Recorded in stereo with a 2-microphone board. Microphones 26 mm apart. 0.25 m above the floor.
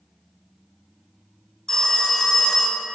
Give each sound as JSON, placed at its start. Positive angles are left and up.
{"t": 1.7, "sound": "a phone ringing", "side_deg": 20, "distance_m": 1.1}